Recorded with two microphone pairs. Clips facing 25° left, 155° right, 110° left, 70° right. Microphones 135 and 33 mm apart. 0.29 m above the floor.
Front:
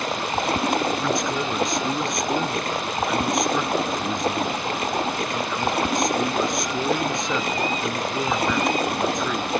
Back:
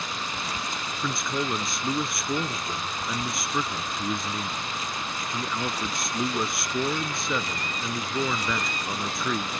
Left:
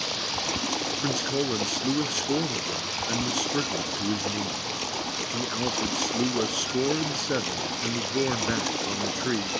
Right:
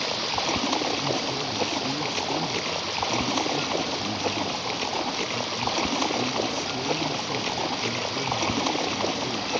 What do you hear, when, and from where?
0.0 s running water: straight ahead
1.0 s a man speaking: 115° left